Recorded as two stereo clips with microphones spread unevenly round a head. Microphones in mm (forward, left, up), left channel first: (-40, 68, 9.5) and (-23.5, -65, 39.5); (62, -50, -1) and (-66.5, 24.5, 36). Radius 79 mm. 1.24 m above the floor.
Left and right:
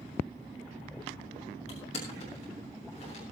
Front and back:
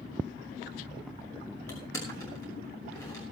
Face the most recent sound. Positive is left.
turn(degrees=45)